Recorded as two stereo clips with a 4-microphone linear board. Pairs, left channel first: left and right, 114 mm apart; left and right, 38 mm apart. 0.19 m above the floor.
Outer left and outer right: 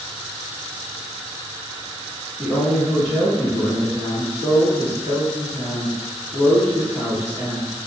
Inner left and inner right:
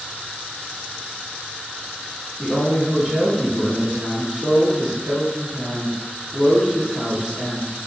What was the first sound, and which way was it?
A woman speaking, 10° right (ahead or behind).